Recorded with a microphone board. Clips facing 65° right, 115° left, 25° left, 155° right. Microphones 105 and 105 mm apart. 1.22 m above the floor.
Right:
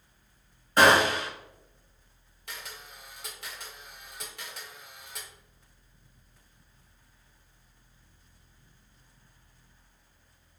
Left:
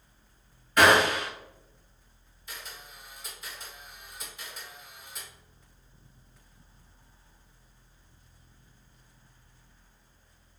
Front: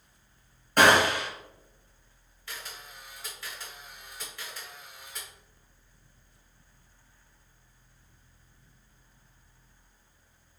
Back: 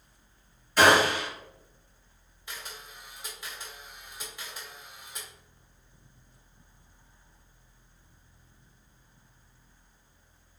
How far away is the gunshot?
About 1.7 m.